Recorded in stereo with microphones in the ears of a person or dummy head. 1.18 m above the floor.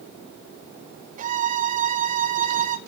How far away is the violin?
About 0.6 m.